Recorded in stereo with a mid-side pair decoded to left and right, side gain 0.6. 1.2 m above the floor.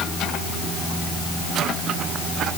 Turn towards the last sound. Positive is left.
No sound to turn to.